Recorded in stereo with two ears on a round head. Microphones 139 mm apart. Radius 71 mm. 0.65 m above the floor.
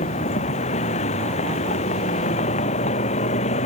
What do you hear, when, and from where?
0.0 s a vehicle: 45° left (ahead or behind)